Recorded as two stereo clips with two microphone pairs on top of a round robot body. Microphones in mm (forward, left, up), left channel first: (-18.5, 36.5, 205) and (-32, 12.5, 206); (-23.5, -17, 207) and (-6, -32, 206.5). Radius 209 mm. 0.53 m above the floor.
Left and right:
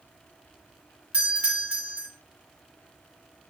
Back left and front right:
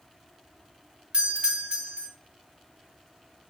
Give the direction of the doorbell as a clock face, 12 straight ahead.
2 o'clock.